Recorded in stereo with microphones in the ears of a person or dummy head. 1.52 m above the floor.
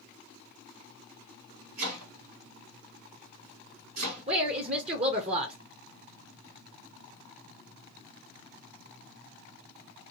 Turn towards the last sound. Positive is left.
turn(degrees=-25)  # may be behind; listen again after turning